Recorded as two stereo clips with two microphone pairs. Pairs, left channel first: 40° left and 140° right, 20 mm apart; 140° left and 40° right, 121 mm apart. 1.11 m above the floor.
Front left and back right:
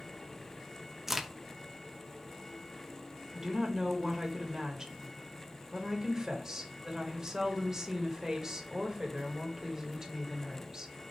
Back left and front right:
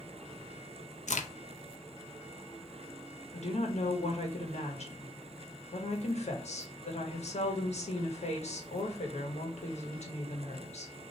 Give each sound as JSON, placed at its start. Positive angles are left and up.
{"t": 1.1, "sound": "a crack", "azimuth_deg": 150, "distance_m": 0.6}
{"t": 3.3, "sound": "a woman speaking", "azimuth_deg": 165, "distance_m": 1.2}